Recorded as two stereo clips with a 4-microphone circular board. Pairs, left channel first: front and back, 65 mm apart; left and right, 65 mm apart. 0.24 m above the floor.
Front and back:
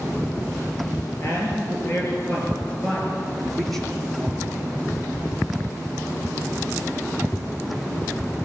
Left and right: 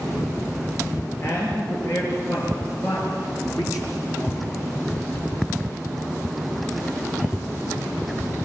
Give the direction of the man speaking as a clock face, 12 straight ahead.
10 o'clock.